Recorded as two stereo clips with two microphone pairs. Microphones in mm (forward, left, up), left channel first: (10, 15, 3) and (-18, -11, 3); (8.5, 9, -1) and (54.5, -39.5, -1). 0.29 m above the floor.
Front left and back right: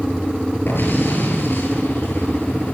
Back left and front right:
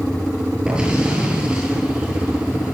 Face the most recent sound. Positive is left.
turn(degrees=30)